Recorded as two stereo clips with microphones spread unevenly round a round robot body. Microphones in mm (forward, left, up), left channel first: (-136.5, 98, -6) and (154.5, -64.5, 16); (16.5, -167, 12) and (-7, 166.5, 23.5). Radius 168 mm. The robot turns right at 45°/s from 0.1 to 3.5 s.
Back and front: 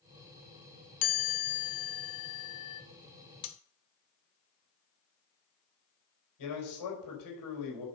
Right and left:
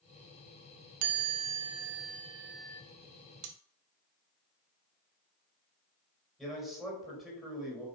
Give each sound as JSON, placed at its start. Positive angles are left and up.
{"t": 1.0, "sound": "a chime", "azimuth_deg": 110, "distance_m": 0.8}
{"t": 3.4, "sound": "cutlery clinking", "azimuth_deg": 120, "distance_m": 1.0}
{"t": 6.4, "sound": "a man speaking", "azimuth_deg": -175, "distance_m": 3.5}